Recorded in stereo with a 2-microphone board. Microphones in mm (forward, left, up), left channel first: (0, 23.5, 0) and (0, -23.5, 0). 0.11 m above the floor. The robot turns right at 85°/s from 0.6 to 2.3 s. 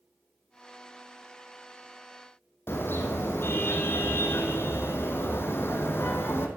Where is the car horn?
55° left (ahead or behind), 2.5 m.